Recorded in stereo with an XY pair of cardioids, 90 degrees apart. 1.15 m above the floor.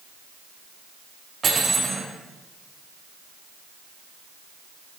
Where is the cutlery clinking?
50° right, 6 m.